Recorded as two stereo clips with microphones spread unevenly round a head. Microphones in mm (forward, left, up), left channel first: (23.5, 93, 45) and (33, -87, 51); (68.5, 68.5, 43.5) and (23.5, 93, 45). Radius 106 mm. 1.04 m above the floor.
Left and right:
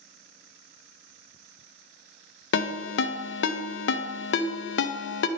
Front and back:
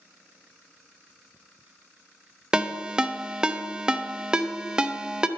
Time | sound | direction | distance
2.5 | a ringtone | 75° left | 0.6 m